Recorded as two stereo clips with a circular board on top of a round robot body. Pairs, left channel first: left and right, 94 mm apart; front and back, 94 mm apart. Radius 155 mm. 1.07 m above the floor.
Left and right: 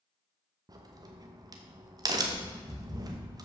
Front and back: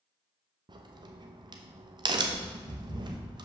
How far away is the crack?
About 0.9 m.